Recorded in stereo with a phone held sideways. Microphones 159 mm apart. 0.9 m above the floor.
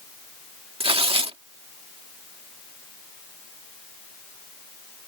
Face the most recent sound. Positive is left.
turn(degrees=-35)  # may be behind; listen again after turning